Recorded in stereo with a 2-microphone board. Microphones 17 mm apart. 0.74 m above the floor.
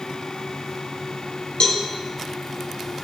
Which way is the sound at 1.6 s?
50° left (ahead or behind).